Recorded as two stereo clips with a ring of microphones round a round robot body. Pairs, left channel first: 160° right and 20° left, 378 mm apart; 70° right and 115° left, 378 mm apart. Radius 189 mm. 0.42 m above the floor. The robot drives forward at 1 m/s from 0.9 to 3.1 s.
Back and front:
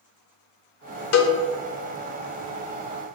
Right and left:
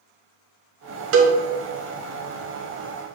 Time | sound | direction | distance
1.1 | a cowbell | 160° left | 1.0 m